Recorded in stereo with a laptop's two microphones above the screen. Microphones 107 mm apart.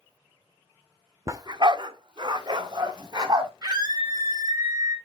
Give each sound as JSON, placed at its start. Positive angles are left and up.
{"t": 1.3, "sound": "a dog barking", "side_deg": -30, "distance_m": 0.7}
{"t": 3.6, "sound": "a scream", "side_deg": -40, "distance_m": 4.5}